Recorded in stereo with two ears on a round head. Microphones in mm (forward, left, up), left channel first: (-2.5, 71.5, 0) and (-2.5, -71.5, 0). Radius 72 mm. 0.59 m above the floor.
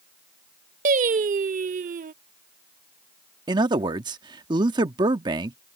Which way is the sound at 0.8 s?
50° right (ahead or behind).